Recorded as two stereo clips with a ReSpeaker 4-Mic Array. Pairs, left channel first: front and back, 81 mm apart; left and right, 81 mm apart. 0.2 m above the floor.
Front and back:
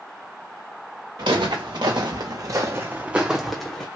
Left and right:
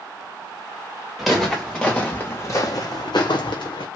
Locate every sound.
1.2 s footsteps: straight behind, 1.2 m; by 3.9 s 80° left, 0.9 m